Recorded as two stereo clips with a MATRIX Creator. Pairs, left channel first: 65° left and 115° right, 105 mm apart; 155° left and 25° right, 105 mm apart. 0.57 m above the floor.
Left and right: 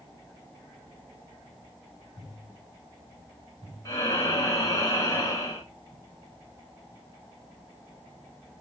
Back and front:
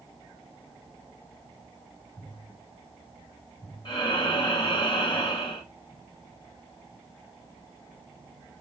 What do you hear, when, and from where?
3.9 s breathing: 120° left, 2.5 m